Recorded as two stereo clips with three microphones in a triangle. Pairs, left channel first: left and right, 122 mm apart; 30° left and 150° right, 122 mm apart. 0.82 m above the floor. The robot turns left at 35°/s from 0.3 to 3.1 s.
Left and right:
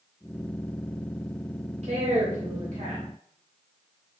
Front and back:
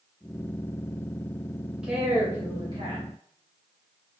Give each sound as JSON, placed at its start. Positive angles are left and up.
{"t": 1.8, "sound": "a woman speaking", "azimuth_deg": -65, "distance_m": 1.4}